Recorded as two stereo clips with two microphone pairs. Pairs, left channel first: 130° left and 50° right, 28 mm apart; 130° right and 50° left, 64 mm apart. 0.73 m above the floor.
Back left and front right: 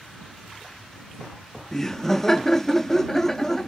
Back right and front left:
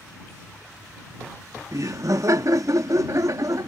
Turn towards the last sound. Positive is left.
turn(degrees=55)